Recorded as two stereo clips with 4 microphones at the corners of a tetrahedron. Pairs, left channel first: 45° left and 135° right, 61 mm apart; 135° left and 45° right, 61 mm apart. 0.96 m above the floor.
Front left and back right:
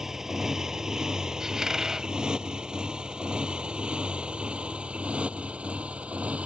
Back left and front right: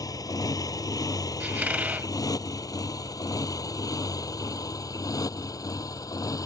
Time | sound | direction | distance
0.0 | a motorcycle | 140° left | ?
1.4 | a squeak | 65° right | ?